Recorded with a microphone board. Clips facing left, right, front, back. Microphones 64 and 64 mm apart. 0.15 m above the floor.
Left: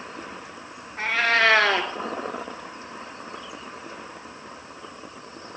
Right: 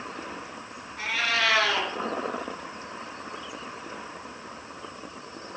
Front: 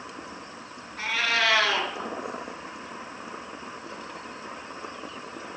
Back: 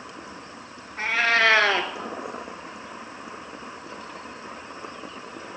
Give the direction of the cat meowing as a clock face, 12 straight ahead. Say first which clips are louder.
Left 6 dB, back 5 dB; 8 o'clock.